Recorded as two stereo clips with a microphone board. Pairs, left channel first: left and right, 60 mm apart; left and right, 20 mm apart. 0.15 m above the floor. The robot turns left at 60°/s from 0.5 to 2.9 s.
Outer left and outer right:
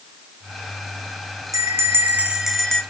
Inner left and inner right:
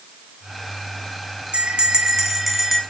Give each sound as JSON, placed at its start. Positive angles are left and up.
{"t": 1.5, "sound": "a bell", "azimuth_deg": -115, "distance_m": 1.8}